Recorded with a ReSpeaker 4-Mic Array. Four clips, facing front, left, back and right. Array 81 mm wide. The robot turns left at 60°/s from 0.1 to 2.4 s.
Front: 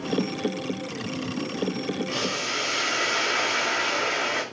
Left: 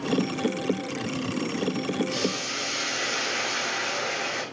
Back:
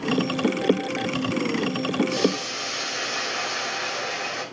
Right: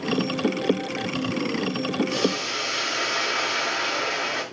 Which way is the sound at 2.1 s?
10° right.